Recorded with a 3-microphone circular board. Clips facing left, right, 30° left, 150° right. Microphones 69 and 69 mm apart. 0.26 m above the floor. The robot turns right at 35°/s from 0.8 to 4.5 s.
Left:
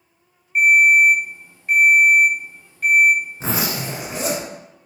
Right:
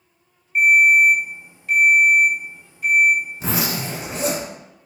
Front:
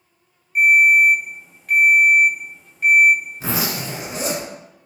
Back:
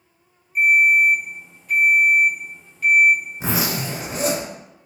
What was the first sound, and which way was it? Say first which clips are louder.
A ringtone: even, front 2 dB; 5° left.